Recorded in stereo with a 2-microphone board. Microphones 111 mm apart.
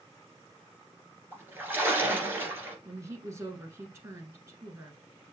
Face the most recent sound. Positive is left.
turn(degrees=-25)  # may be behind; listen again after turning